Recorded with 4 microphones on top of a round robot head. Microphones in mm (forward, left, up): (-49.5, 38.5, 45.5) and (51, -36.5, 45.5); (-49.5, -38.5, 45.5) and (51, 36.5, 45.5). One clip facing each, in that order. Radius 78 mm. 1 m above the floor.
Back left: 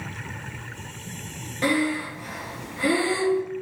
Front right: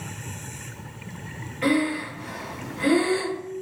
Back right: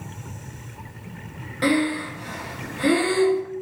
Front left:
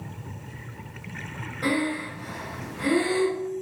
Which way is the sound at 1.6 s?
160° right.